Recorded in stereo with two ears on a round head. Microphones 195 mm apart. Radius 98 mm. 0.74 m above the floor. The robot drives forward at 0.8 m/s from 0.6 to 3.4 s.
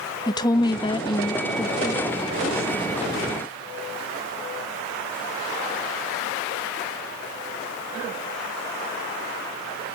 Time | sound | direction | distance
0.3 | a woman speaking | 20° left (ahead or behind) | 0.5 m